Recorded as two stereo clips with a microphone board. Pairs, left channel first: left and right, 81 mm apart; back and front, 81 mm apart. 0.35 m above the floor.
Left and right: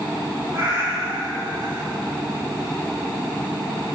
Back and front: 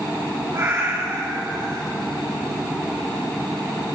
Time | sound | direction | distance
0.5 | a cat meowing | 35° right | 5 m